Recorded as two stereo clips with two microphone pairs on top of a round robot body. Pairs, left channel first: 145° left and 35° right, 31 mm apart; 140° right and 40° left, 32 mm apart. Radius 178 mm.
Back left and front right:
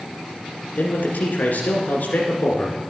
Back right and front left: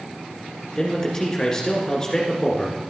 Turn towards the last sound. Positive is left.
turn(degrees=150)